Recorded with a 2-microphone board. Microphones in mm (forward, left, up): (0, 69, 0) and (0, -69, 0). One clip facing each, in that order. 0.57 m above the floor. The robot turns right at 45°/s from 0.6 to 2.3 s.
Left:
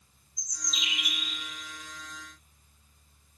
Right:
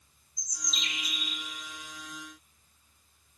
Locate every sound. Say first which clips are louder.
0.4 s a bird: even; 5° right, 0.8 m; by 1.4 s 35° left, 0.8 m